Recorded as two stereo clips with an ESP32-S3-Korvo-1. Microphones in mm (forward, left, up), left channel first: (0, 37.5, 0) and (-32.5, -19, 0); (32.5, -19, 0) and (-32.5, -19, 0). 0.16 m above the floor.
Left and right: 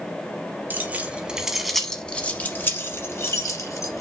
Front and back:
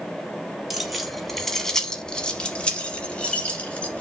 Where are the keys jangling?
95° right, 1.0 m; by 4.0 s 65° left, 1.5 m.